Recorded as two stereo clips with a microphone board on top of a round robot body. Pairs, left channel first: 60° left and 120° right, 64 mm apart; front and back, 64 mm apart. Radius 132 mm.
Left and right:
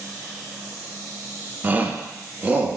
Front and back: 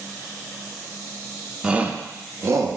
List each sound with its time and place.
1.6 s a shout: 120° right, 0.7 m; by 2.8 s 175° left, 1.0 m